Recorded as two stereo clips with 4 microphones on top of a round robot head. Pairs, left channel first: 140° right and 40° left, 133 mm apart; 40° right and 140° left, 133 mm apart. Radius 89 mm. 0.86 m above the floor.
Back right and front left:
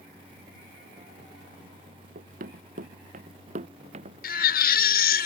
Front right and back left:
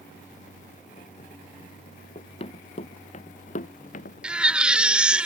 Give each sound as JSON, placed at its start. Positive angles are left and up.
{"t": 2.1, "sound": "running footsteps", "azimuth_deg": 15}
{"t": 4.2, "sound": "a baby crying", "azimuth_deg": -135}